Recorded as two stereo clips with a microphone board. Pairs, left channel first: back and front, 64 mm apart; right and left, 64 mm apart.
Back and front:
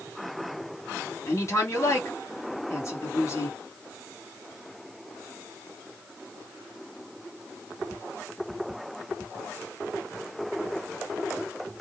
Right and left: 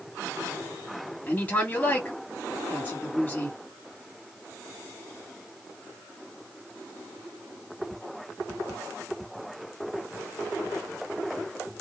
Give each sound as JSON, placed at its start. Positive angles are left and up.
{"t": 1.3, "sound": "a woman speaking", "azimuth_deg": -150, "distance_m": 2.0}